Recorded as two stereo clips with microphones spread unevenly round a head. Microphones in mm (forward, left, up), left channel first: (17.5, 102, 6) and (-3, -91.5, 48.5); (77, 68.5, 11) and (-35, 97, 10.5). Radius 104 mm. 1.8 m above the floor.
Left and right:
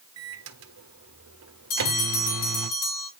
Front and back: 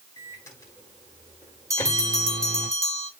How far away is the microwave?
About 1.4 m.